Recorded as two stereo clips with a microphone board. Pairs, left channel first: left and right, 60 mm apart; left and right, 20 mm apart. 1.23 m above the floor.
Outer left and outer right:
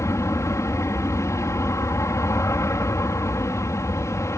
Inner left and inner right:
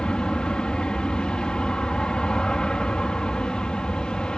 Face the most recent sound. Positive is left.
turn(degrees=55)  # may be behind; listen again after turning